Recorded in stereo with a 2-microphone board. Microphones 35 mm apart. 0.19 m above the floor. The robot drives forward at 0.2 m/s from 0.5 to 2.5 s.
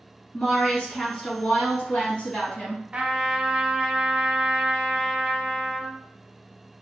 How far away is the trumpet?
About 0.6 m.